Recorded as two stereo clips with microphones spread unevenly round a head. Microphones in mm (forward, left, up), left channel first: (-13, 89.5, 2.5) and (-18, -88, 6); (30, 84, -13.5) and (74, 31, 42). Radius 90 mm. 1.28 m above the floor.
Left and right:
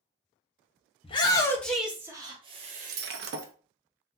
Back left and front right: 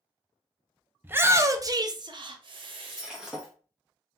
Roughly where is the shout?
Ahead left.